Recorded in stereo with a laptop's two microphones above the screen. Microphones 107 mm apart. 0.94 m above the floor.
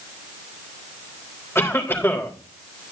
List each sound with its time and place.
1.6 s a cough: 20° left (ahead or behind), 3.5 m